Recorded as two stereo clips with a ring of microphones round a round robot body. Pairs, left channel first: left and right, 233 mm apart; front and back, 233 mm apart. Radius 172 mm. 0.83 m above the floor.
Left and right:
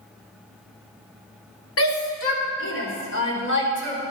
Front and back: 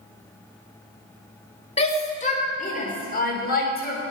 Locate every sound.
1.8 s a shout: 65° left, 3 m; by 4.0 s 50° left, 4.5 m